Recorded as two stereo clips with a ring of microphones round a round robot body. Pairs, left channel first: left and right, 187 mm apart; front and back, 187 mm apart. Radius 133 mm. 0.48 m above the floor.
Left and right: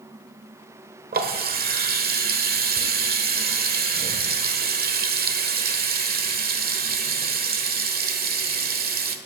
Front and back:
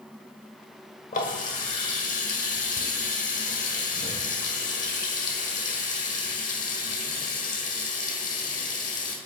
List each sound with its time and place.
1.1 s a running tap: 60° right, 1.4 m